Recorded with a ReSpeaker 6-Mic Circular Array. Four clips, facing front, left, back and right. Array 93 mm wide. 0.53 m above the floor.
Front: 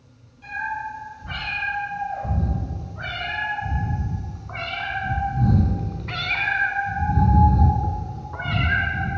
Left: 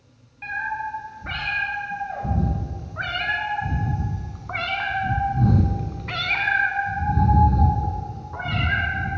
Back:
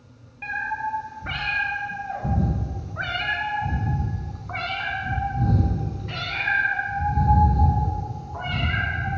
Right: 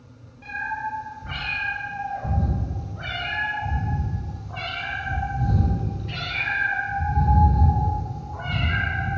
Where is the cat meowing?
145° left, 3 m; by 9.2 s 20° left, 2.5 m.